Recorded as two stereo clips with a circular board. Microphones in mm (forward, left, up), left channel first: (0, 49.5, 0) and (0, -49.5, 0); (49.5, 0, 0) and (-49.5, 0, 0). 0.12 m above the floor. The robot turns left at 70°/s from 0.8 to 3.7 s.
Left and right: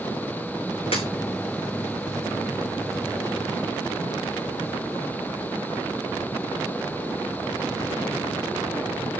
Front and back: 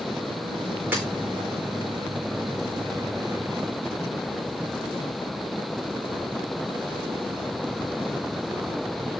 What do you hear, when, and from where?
0.9 s breaking glass: 110° left, 6 m; by 1.1 s 100° left, 6 m